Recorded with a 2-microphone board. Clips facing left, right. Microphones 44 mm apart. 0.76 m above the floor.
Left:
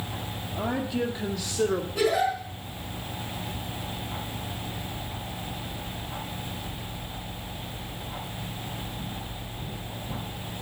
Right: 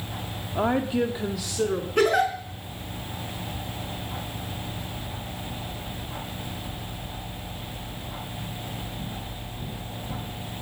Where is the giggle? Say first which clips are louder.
Right 4 dB; 55° right (ahead or behind), 4.5 m.